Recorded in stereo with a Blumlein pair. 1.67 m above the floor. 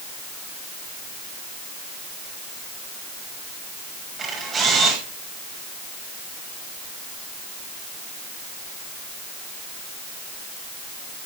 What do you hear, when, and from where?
4.2 s a camera shutter: 20° right, 5.5 m